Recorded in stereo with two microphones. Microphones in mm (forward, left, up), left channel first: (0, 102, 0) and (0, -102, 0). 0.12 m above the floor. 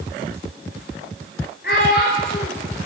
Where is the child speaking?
55° left (ahead or behind), 5.5 m.